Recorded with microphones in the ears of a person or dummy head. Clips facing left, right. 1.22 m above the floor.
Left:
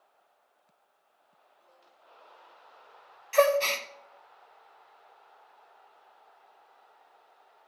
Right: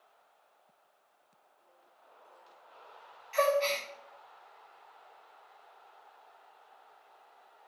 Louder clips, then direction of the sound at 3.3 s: Left 5 dB; 60° left (ahead or behind).